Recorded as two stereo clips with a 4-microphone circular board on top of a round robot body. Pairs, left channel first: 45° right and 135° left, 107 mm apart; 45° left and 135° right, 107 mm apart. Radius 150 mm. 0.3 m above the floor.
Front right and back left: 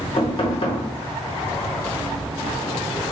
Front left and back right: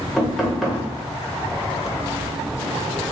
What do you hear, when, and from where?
0.2 s knocking: 45° right, 1.3 m